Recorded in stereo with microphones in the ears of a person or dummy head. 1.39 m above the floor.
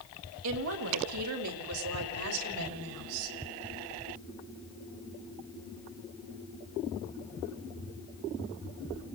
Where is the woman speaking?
80° right, 4 m; by 3.4 s 75° right (ahead or behind), 6.5 m.